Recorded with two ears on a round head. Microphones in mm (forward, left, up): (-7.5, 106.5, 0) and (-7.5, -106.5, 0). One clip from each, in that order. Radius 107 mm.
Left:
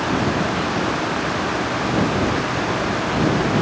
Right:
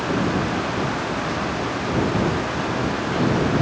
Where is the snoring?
No snoring in this recording.